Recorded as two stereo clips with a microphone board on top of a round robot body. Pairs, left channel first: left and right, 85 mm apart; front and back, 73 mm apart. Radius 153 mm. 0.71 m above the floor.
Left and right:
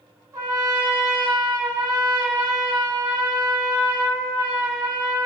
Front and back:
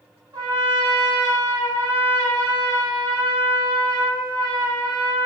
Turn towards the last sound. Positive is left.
turn(degrees=-145)